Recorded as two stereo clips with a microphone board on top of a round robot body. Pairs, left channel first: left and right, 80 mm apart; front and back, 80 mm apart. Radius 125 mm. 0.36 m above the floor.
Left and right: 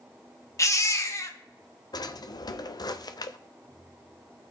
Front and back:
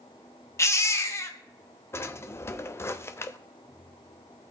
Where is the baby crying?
50° left, 1.4 m.